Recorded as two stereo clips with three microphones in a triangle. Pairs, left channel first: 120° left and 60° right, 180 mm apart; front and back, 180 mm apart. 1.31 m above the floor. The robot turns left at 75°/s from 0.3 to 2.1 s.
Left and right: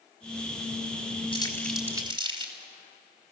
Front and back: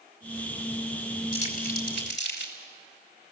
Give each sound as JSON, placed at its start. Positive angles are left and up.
{"t": 1.3, "sound": "crumpling", "azimuth_deg": 60, "distance_m": 4.0}